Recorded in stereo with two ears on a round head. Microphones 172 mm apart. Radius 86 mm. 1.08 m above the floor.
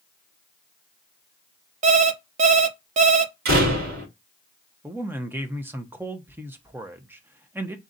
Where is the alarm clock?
40° right (ahead or behind), 0.6 m.